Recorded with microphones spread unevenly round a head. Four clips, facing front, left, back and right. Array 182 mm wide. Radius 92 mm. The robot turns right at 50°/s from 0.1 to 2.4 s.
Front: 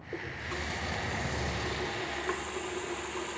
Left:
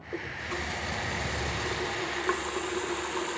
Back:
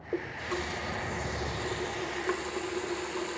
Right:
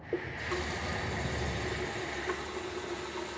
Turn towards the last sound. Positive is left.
turn(degrees=40)